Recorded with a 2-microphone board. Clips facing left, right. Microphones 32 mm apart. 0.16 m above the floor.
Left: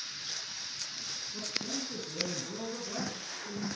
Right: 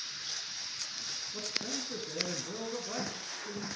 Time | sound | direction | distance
1.3 | a man speaking | 20° right (ahead or behind) | 2.5 m